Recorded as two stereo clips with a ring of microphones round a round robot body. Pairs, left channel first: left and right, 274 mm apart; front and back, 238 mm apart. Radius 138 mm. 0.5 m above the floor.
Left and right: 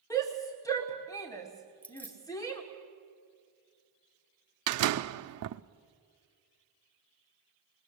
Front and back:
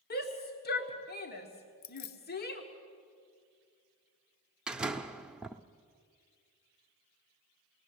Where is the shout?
20° left, 1.7 m.